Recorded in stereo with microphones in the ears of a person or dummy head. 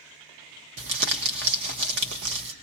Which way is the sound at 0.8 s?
70° right (ahead or behind).